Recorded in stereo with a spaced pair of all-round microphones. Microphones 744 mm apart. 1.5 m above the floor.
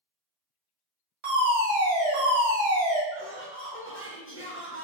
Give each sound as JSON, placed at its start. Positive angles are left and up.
{"t": 1.2, "sound": "a fire alarm", "side_deg": -40, "distance_m": 1.6}
{"t": 3.1, "sound": "laughter", "side_deg": 15, "distance_m": 1.5}